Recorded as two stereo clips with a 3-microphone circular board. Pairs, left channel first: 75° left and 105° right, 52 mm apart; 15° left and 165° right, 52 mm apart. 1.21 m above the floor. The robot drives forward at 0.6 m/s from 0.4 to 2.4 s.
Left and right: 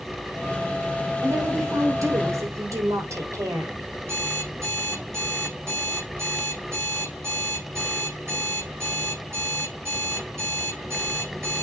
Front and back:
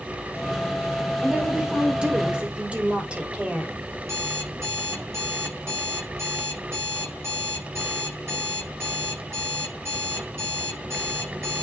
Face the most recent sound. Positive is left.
turn(degrees=-135)